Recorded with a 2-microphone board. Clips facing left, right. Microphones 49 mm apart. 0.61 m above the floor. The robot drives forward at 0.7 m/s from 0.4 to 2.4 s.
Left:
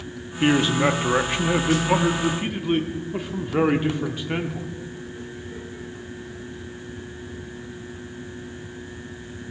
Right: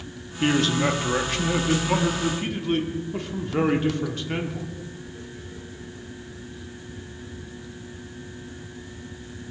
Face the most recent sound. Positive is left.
turn(degrees=15)  # may be behind; listen again after turning